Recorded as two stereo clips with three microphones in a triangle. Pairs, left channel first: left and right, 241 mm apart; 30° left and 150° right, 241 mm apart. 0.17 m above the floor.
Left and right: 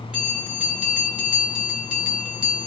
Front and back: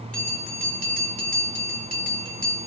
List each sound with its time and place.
0.1 s a bell: 175° right, 1.5 m